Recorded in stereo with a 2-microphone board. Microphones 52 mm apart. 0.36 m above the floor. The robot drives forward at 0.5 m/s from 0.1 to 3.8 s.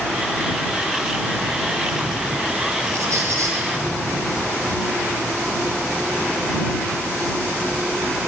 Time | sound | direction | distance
2.9 | a squeak | 70° right (ahead or behind) | 7 m